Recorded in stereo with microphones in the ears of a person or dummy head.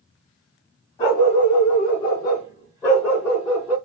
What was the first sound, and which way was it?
A dog barking, 30° left (ahead or behind).